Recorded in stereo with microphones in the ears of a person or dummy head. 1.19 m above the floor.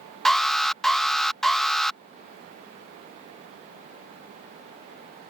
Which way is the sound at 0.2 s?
Centre (ahead or behind).